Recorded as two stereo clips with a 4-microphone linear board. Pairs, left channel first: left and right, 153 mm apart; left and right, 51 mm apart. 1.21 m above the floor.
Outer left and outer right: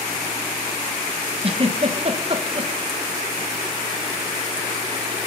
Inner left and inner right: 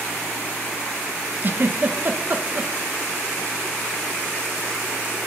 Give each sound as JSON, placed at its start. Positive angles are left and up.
{"t": 1.4, "sound": "a giggle", "side_deg": -40, "distance_m": 1.4}